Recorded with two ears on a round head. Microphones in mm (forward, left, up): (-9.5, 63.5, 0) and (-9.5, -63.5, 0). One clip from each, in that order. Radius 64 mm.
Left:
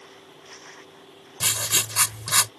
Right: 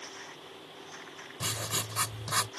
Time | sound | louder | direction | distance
1.4 | writing | left 9 dB | 60° left (ahead or behind) | ?